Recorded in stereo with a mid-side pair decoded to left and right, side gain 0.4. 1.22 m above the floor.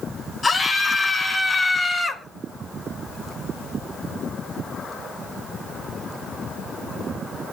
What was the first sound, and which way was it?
A scream, 35° left.